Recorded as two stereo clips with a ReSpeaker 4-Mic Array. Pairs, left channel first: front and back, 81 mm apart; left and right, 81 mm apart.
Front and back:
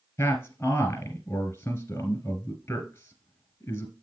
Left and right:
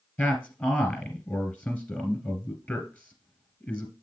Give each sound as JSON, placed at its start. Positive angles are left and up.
{"t": 0.2, "sound": "a man speaking", "azimuth_deg": 35, "distance_m": 2.0}